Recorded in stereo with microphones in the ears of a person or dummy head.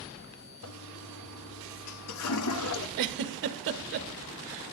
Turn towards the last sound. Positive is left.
turn(degrees=-60)  # may be behind; listen again after turning